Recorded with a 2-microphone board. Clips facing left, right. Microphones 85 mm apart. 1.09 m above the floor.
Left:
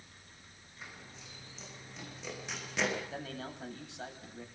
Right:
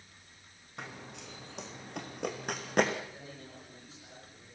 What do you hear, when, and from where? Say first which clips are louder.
0.8 s running footsteps: right 6 dB; 75° right (ahead or behind), 4.5 m; by 3.0 s 50° right (ahead or behind), 4 m
3.1 s a man speaking: left 6 dB; 85° left, 8 m